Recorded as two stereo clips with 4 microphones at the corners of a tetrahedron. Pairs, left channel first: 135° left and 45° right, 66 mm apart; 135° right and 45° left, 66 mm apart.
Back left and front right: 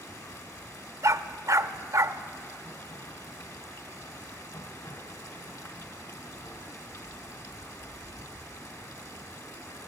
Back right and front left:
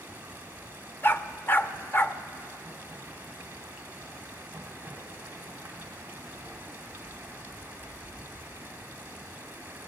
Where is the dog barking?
80° right, 0.6 m.